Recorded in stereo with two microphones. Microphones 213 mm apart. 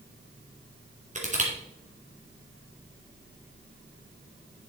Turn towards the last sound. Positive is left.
turn(degrees=-35)  # may be behind; listen again after turning